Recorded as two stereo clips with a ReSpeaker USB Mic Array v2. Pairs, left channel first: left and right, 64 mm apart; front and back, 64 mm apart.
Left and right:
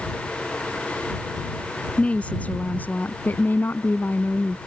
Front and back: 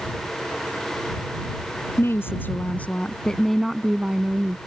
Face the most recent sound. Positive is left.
turn(degrees=130)